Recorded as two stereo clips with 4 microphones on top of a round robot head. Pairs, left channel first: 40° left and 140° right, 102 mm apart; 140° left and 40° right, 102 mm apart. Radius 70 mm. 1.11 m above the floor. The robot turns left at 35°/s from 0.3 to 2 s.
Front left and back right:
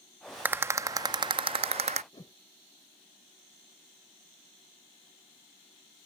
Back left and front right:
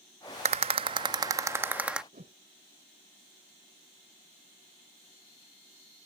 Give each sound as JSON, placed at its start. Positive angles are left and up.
{"t": 0.5, "sound": "a rattle", "azimuth_deg": -70}
{"t": 2.1, "sound": "a whoosh", "azimuth_deg": -15}